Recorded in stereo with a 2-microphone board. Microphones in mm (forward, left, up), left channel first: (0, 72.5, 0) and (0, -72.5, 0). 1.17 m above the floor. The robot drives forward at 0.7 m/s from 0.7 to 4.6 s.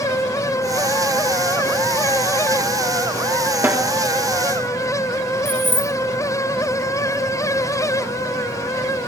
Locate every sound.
3.6 s a snare drum: 15° right (ahead or behind), 1.1 m
5.5 s keys jangling: 80° left, 1.0 m